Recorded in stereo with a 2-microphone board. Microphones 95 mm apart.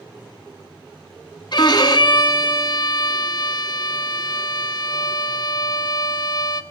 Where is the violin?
55° left (ahead or behind), 1.1 m.